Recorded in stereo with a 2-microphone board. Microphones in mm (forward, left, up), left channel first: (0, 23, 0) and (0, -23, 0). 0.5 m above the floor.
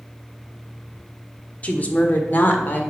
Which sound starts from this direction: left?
A woman speaking, at 1.6 s.